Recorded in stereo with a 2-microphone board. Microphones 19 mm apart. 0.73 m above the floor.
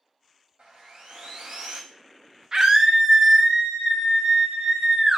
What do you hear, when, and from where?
0.6 s sawing: 60° right (ahead or behind), 0.9 m
2.5 s a scream: 35° right (ahead or behind), 0.5 m